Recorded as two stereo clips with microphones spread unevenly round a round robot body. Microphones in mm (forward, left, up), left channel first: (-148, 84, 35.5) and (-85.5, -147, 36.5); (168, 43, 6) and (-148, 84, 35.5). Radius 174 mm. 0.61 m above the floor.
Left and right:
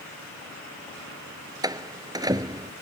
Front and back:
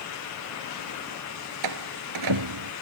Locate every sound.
1.6 s a door slam: 150° right